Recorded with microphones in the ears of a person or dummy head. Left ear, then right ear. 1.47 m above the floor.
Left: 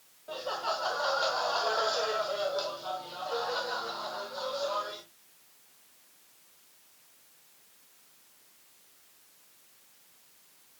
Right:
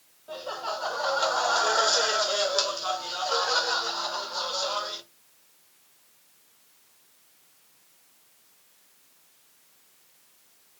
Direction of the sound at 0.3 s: Centre (ahead or behind).